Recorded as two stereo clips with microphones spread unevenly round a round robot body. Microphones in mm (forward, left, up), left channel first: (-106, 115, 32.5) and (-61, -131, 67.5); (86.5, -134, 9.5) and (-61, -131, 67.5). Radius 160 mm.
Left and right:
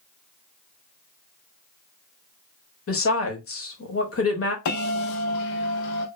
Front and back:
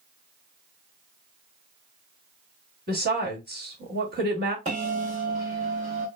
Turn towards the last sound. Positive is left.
turn(degrees=120)